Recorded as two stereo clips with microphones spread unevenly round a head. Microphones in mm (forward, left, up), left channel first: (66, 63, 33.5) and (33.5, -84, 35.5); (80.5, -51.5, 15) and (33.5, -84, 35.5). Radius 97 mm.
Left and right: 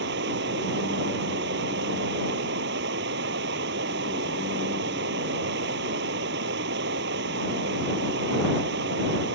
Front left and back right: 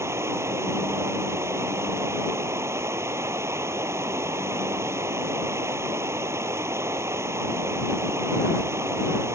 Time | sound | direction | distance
0.0 | running water | 110° right | ?